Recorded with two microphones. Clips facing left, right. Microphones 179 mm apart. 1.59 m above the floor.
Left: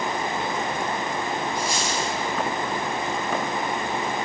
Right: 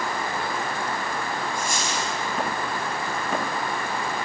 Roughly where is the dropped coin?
Right.